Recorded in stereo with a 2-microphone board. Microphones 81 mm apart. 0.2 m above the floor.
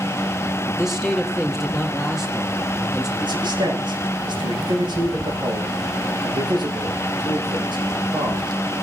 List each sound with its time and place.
0.7 s a man speaking: 5° right (ahead or behind), 4.5 m
3.2 s a man speaking: 75° right (ahead or behind), 10 m